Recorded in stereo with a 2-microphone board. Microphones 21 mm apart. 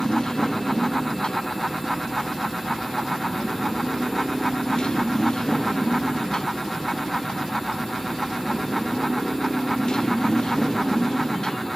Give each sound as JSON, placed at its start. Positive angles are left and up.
{"t": 0.0, "sound": "a motorcycle", "side_deg": 45}